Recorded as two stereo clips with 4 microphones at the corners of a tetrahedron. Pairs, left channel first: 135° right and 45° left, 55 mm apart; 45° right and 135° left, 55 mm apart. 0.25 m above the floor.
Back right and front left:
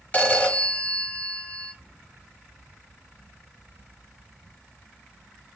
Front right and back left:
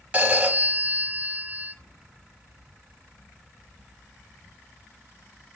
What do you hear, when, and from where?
0.1 s a phone ringing: straight behind, 0.7 m